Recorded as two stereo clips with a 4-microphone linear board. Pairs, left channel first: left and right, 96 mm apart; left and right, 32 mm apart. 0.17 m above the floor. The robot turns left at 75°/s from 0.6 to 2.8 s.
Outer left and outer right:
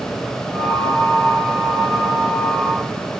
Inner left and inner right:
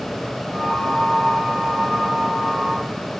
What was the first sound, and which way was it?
Only background noise.